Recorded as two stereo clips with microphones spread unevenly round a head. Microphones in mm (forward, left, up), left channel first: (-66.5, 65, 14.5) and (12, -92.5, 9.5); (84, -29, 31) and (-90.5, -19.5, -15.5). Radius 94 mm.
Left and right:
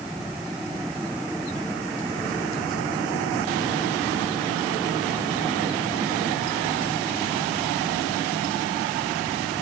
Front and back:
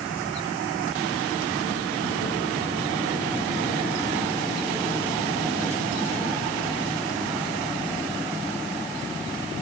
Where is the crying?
I don't hear crying.